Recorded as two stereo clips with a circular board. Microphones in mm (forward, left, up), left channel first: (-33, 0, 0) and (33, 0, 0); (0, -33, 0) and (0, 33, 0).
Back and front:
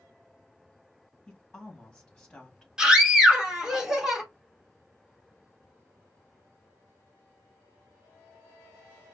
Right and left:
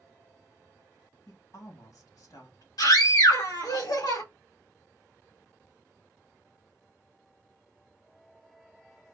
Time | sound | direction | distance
1.3 | a woman speaking | 100° right | 1.9 m
2.8 | a scream | 80° right | 1.9 m